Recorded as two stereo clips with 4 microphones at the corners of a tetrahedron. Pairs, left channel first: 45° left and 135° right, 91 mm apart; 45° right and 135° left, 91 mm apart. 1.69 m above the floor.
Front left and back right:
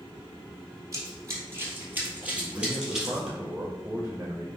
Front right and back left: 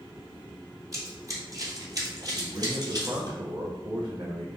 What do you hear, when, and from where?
0.9 s running footsteps: straight behind, 2.5 m; by 3.3 s 135° left, 2.5 m
2.3 s a man speaking: 155° left, 1.6 m